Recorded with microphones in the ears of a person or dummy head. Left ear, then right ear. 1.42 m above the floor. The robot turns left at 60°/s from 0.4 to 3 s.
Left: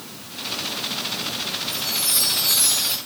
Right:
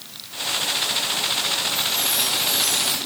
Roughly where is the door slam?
I don't hear a door slam.